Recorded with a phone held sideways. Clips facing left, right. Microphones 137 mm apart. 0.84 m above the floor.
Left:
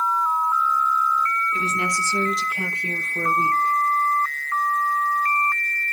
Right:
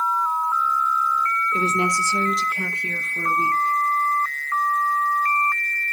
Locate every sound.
1.5 s a woman speaking: 40° right (ahead or behind), 1.2 m; by 3.7 s 55° left (ahead or behind), 1.5 m